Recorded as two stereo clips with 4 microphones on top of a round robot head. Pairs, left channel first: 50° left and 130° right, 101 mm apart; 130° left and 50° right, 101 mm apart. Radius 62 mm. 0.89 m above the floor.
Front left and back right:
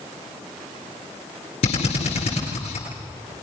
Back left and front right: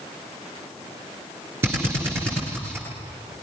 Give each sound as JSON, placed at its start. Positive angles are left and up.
{"t": 1.6, "sound": "a drill", "azimuth_deg": 20, "distance_m": 10.0}